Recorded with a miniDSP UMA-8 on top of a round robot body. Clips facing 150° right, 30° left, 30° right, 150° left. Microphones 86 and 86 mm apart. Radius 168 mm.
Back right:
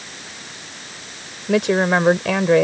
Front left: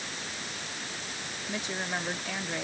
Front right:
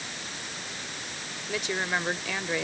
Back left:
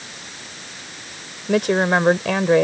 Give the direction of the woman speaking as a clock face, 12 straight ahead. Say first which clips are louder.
Back right 18 dB, back left 13 dB; 6 o'clock.